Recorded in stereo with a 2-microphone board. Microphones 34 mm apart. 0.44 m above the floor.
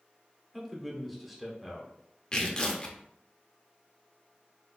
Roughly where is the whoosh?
No whoosh in this recording.